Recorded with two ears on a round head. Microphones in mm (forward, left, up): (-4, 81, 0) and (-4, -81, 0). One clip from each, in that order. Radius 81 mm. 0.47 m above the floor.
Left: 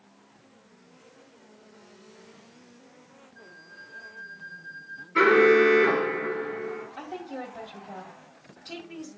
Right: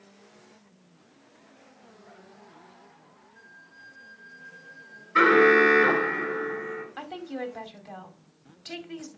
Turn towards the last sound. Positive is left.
turn(degrees=-55)  # may be behind; listen again after turning